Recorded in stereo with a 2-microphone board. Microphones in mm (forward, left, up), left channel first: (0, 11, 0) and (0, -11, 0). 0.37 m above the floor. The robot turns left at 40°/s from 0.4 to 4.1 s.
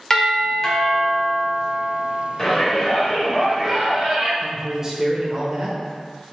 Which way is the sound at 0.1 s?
15° left (ahead or behind).